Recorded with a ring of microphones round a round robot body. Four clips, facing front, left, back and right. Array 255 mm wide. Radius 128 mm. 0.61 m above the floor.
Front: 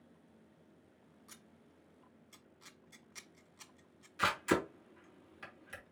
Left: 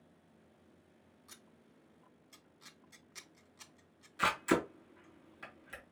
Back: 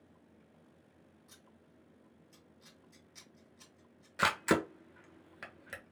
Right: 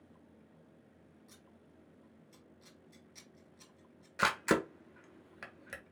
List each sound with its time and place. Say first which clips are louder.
1.3 s scissors: right 2 dB, even; 45° left, 1.2 m
4.2 s a camera shutter: right 1 dB, back 2 dB; 130° right, 1.5 m